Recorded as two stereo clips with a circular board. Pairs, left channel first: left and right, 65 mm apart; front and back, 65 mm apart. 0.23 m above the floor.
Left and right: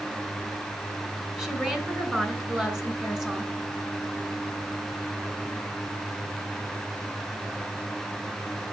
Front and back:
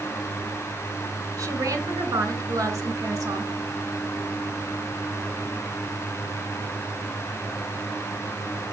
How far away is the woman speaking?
About 2.5 m.